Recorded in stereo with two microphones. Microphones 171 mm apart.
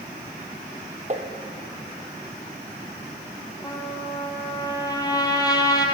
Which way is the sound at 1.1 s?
45° right (ahead or behind).